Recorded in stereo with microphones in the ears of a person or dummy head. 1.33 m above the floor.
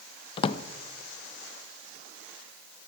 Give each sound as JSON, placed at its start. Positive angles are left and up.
{"t": 0.4, "sound": "a drawer", "side_deg": 25, "distance_m": 0.7}